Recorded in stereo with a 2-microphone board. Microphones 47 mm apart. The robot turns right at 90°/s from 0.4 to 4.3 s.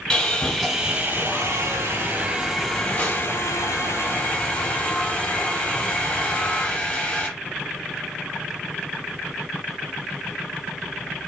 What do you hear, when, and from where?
0.1 s sawing: 165° left, 1.4 m; by 7.3 s 155° left, 1.4 m